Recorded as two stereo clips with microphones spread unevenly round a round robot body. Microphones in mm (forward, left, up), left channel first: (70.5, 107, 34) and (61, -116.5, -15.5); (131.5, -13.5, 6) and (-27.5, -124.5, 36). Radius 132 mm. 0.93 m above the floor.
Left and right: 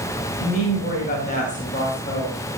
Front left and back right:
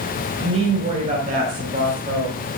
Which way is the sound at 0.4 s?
145° left.